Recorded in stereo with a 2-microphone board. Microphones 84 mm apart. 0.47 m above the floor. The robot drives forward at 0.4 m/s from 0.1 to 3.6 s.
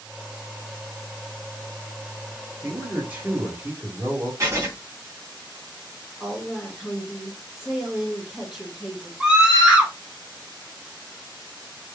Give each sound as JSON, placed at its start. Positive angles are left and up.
{"t": 2.6, "sound": "a man speaking", "side_deg": -25, "distance_m": 1.3}
{"t": 4.4, "sound": "writing", "side_deg": -40, "distance_m": 1.6}
{"t": 6.2, "sound": "a woman speaking", "side_deg": 0, "distance_m": 1.7}
{"t": 9.2, "sound": "a scream", "side_deg": -10, "distance_m": 1.9}